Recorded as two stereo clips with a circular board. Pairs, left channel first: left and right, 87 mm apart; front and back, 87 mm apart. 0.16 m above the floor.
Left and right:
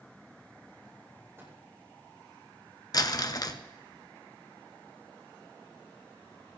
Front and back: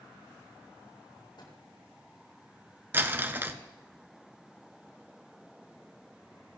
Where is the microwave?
30° right, 6.5 m.